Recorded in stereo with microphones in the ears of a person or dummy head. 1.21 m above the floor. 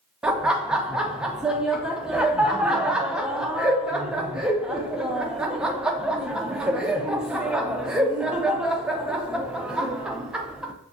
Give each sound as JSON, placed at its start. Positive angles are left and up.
{"t": 0.2, "sound": "laughter", "side_deg": -5, "distance_m": 0.5}